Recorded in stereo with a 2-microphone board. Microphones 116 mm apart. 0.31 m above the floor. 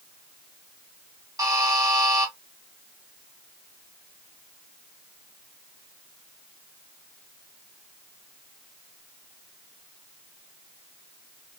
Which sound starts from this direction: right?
A buzzer, at 1.4 s.